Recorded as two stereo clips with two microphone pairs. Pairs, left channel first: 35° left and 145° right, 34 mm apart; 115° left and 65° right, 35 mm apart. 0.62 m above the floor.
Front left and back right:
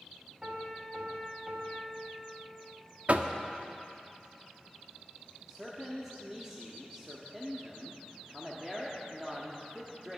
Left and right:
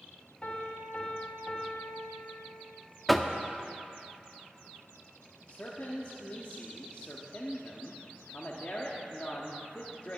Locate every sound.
0.4 s a piano: 160° left, 2.5 m
3.1 s knocking: 155° right, 0.6 m
5.5 s a man speaking: 140° left, 1.1 m